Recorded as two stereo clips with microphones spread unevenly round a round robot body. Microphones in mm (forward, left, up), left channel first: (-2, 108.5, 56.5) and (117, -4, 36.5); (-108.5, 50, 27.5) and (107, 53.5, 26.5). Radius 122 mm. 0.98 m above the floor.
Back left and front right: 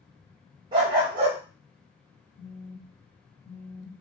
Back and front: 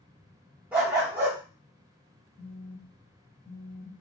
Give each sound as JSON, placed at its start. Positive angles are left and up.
{"t": 0.7, "sound": "a dog barking", "azimuth_deg": -70, "distance_m": 0.5}
{"t": 2.4, "sound": "a phone buzzing", "azimuth_deg": 120, "distance_m": 1.1}